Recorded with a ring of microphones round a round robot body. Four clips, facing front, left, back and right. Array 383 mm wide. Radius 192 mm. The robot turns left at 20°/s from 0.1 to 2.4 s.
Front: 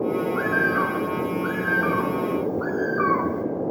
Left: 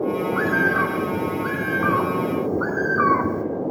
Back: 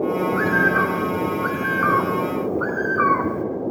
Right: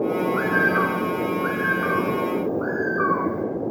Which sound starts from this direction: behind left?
A bird, at 0.3 s.